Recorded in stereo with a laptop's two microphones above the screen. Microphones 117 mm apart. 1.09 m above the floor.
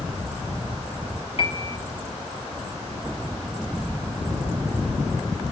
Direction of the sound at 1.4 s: 55° left (ahead or behind).